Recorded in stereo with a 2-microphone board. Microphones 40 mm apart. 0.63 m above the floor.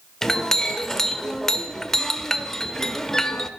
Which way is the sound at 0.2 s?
10° left (ahead or behind).